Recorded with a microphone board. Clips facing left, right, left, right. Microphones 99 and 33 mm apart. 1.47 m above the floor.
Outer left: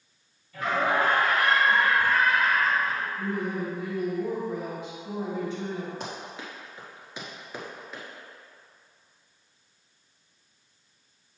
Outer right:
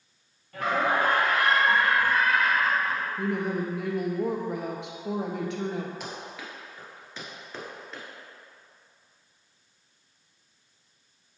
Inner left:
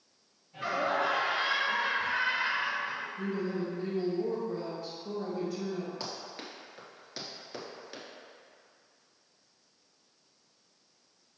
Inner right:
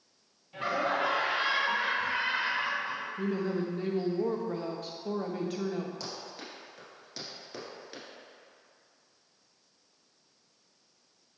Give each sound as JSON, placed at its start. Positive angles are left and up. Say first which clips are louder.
{"t": 0.5, "sound": "laughter", "louder": "even, even", "side_deg": -60, "distance_m": 1.8}
{"t": 3.2, "sound": "a woman speaking", "louder": "outer right 2 dB, inner right 3 dB", "side_deg": -70, "distance_m": 0.9}
{"t": 6.0, "sound": "running footsteps", "louder": "outer left 1 dB, inner left 1 dB", "side_deg": 30, "distance_m": 1.8}